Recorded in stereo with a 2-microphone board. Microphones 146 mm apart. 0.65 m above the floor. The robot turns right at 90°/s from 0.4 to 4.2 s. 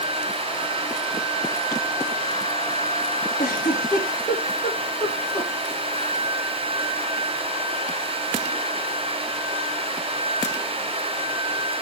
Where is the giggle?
70° left (ahead or behind), 5.5 m; by 5.5 s 35° left (ahead or behind), 5.5 m.